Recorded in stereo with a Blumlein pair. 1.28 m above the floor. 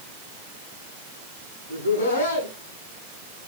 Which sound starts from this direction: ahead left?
Laughter, at 1.7 s.